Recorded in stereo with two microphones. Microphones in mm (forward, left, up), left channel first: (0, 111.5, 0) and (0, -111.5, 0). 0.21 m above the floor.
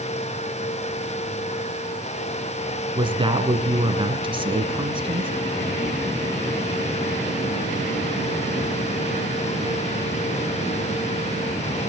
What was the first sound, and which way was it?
A woman speaking, 20° right (ahead or behind).